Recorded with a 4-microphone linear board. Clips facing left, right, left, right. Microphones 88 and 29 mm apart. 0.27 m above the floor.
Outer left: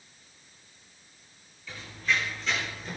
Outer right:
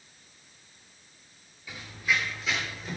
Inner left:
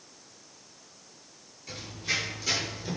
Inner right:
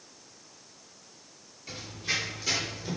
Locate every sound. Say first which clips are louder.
1.7 s running footsteps: even, even; 10° right (ahead or behind), 8 m; by 3.0 s centre (ahead or behind), 8.5 m